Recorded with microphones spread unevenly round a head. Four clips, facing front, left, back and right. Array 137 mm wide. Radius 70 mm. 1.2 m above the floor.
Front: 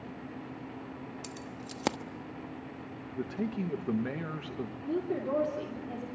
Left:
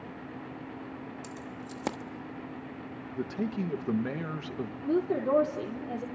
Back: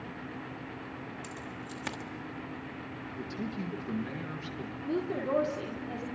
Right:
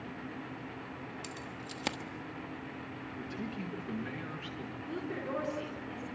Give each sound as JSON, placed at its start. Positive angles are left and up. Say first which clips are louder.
{"t": 1.2, "sound": "keys jangling", "louder": "left 3 dB, back 1 dB", "azimuth_deg": 25, "distance_m": 1.1}
{"t": 3.2, "sound": "a man speaking", "louder": "left 9 dB, front 4 dB", "azimuth_deg": 60, "distance_m": 1.7}
{"t": 4.8, "sound": "a woman speaking", "louder": "left 12 dB, back 1 dB", "azimuth_deg": 90, "distance_m": 3.0}